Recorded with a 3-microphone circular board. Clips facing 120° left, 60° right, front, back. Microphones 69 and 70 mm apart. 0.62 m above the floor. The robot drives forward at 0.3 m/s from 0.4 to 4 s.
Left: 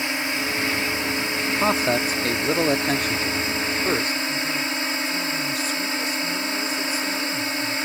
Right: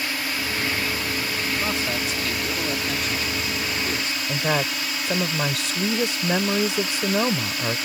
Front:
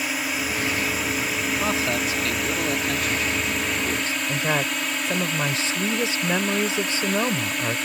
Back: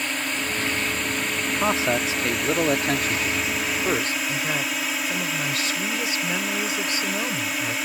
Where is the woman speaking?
60° right.